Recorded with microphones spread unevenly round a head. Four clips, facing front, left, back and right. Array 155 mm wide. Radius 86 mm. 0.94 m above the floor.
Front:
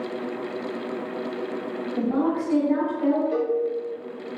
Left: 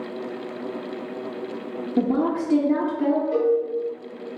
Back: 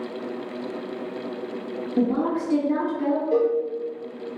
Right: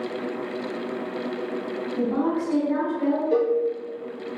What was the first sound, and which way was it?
A woman speaking, 110° left.